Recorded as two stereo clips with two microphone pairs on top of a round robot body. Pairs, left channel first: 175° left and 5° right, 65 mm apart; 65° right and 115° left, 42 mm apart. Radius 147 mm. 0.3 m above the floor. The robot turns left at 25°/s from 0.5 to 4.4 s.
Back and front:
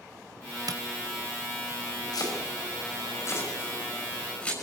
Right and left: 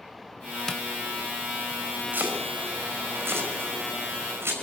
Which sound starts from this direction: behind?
Chopping, at 2.1 s.